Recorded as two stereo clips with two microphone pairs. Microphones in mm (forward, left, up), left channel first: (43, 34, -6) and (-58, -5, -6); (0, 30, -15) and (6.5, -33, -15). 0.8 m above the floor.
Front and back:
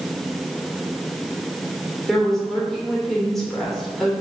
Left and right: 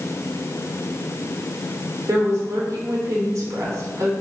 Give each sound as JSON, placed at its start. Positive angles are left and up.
{"t": 2.1, "sound": "a woman speaking", "azimuth_deg": -65, "distance_m": 2.5}